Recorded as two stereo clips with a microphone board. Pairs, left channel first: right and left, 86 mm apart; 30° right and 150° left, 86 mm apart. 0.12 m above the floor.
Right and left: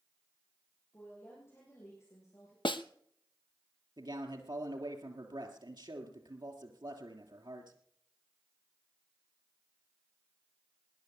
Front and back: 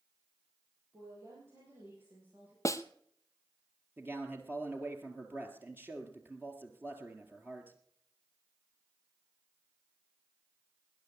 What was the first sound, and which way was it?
A woman speaking, 155° right.